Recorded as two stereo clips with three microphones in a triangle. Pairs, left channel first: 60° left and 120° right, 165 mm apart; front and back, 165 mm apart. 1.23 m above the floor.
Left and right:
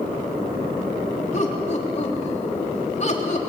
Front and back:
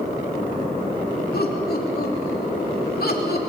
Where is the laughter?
15° left, 3 m.